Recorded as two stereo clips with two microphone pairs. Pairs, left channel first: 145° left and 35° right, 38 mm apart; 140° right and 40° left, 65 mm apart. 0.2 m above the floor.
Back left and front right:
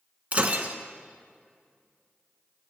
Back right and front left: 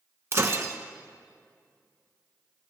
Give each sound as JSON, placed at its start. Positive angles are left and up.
{"t": 0.3, "sound": "breaking glass", "azimuth_deg": 5, "distance_m": 0.9}